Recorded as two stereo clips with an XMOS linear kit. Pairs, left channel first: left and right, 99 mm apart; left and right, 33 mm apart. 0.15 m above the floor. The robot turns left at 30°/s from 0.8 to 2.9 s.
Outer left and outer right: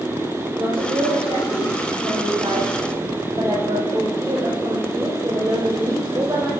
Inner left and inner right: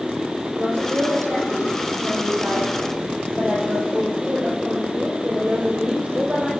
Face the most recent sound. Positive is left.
turn(degrees=-140)